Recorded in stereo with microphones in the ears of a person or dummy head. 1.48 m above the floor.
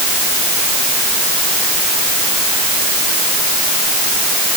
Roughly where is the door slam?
I don't hear a door slam.